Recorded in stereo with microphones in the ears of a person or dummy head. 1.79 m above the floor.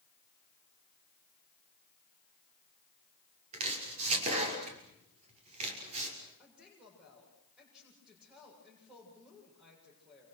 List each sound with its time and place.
3.5 s chopping: 35° right (ahead or behind), 6 m
6.4 s a woman speaking: 5° right (ahead or behind), 7.5 m